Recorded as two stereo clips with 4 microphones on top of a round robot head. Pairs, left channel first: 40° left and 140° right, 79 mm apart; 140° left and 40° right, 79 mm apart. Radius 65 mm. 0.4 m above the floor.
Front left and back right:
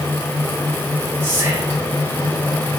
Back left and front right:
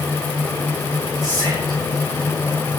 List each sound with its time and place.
1.2 s whispering: 75° right, 1.7 m